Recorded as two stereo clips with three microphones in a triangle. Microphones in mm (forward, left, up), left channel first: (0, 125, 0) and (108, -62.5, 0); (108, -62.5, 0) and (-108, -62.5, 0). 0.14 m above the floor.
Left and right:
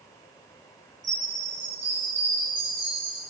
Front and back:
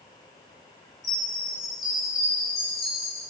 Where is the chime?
90° right, 1.7 m.